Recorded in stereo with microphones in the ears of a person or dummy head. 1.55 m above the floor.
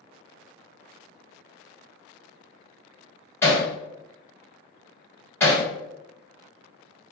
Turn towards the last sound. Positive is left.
turn(degrees=20)  # may be behind; listen again after turning